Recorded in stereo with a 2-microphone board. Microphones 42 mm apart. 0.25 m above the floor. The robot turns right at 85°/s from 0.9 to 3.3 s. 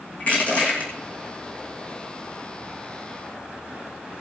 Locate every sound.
0.2 s crushing: 35° left (ahead or behind), 2.5 m